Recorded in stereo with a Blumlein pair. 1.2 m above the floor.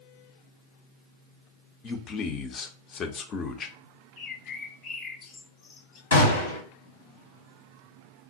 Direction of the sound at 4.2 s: 30° left.